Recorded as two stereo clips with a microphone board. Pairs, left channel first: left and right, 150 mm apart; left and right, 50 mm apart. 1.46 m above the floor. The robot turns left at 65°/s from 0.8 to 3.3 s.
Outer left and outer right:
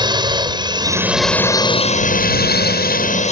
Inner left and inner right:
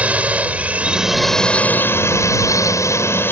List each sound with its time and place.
0.0 s a drone: 155° right; by 3.3 s 45° left